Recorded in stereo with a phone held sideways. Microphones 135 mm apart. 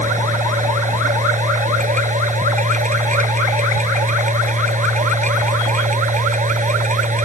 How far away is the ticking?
I don't hear ticking.